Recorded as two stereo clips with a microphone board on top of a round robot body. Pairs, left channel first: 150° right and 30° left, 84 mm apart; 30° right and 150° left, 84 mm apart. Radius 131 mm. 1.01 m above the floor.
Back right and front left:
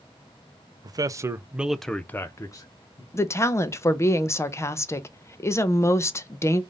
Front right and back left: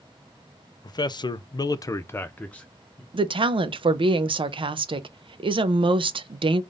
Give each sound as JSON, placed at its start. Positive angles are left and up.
{"t": 0.8, "sound": "a man speaking", "azimuth_deg": 0, "distance_m": 0.7}
{"t": 3.1, "sound": "a woman speaking", "azimuth_deg": 155, "distance_m": 0.7}